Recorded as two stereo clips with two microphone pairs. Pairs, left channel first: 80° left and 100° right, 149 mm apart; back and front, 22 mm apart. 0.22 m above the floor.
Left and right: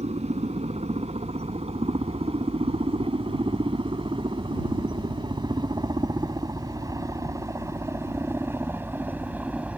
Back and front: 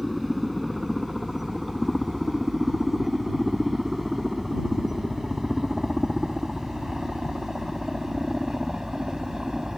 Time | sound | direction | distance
0.0 | a helicopter | 80° right | ?